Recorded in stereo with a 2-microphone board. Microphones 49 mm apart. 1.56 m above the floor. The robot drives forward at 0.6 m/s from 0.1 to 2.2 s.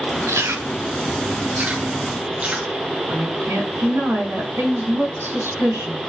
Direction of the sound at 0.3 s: 70° right (ahead or behind).